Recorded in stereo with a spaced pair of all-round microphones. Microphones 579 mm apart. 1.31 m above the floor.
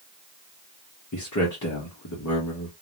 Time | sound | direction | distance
1.1 | a man speaking | 30° left (ahead or behind) | 0.7 m